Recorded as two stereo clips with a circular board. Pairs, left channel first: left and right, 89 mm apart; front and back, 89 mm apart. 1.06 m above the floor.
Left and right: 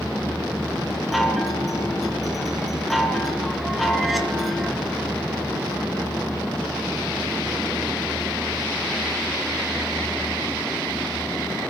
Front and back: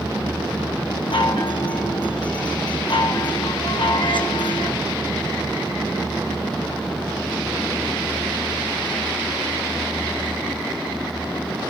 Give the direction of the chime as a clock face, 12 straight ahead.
12 o'clock.